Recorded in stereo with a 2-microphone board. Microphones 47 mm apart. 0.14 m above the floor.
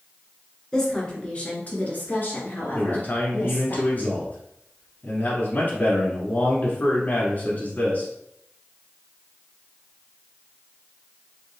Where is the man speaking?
40° left (ahead or behind), 1.4 m.